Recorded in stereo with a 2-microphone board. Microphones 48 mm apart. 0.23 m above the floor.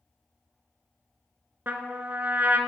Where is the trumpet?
45° right (ahead or behind), 0.7 m.